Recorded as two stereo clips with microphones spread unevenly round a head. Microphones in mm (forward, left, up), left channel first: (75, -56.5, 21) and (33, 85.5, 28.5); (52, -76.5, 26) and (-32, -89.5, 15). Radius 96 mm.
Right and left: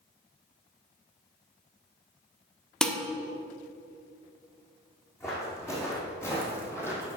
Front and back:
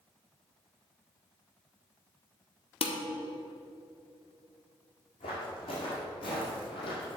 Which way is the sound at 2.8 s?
10° left.